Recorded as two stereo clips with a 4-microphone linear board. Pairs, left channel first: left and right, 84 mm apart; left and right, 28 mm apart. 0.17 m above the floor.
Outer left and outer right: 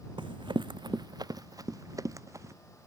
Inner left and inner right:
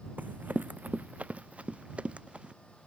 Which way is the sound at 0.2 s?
80° right.